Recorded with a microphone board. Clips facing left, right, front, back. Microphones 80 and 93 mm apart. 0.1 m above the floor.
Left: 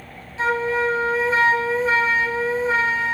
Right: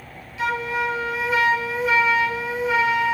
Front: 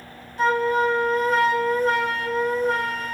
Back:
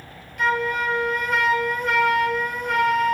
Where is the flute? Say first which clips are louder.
Left 3 dB, front 3 dB; 45° left, 1.6 m.